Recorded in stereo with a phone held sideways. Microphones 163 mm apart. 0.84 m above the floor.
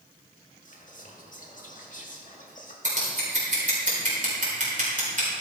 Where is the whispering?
55° left (ahead or behind), 1.8 m.